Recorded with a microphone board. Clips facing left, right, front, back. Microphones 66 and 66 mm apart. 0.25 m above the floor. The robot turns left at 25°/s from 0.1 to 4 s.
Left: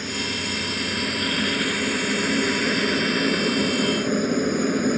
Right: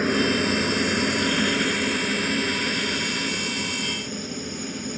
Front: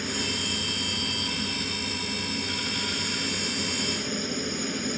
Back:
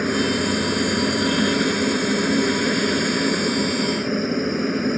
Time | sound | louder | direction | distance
0.0 | a helicopter | right 7 dB, back 11 dB | 135° right | ?